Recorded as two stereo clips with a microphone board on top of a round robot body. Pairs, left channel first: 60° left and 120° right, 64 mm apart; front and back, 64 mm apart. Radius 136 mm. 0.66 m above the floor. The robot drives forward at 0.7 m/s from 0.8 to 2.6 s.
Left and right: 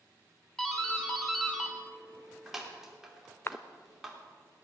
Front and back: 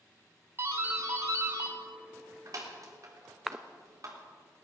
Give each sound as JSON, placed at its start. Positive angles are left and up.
{"t": 0.6, "sound": "a doorbell", "azimuth_deg": 140, "distance_m": 2.5}
{"t": 3.5, "sound": "a cough", "azimuth_deg": 95, "distance_m": 0.9}